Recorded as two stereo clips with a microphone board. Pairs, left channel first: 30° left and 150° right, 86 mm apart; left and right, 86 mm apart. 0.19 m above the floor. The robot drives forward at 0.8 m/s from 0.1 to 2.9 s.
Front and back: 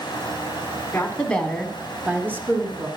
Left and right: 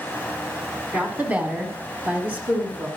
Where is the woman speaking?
25° right, 1.3 m; by 2.9 s 155° right, 1.3 m.